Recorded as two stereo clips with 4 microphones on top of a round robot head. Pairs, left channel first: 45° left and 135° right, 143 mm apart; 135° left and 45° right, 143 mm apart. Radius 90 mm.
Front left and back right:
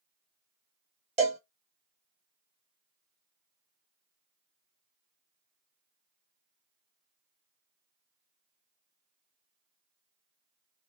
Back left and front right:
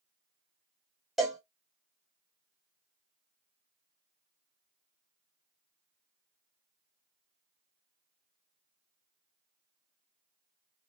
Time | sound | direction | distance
1.2 | a cowbell | 130° right | 0.6 m